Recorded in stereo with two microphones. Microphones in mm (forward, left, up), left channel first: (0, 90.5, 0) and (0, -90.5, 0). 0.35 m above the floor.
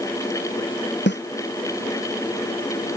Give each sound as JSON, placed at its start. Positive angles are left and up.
{"t": 1.1, "sound": "a snare drum", "side_deg": 80}